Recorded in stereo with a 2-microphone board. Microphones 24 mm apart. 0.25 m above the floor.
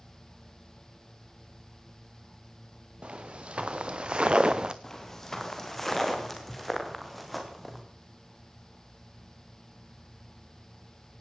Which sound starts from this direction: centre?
Footsteps, at 4.8 s.